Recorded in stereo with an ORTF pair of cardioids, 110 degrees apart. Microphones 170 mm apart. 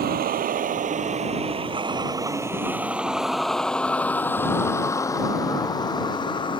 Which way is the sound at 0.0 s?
60° right.